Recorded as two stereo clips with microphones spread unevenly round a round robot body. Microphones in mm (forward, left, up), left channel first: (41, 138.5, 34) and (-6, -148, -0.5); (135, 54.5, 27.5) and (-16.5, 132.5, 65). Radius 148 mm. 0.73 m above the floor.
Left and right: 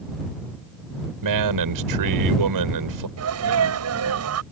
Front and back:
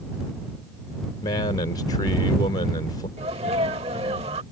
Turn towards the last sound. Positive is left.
turn(degrees=-140)